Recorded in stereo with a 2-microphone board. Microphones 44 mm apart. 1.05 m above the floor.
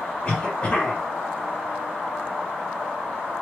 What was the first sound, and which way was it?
A cough, 30° left (ahead or behind).